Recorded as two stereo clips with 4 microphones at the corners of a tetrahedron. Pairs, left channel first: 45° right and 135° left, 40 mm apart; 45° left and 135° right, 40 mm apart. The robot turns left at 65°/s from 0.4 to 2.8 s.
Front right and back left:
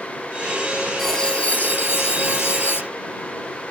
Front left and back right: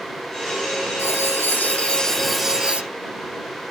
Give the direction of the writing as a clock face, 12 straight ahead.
11 o'clock.